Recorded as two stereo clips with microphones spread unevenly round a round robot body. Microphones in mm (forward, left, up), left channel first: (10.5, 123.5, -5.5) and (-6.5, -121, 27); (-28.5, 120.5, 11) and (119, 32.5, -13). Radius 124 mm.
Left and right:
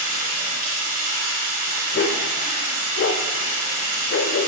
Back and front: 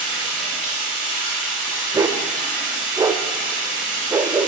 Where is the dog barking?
40° left, 0.6 m.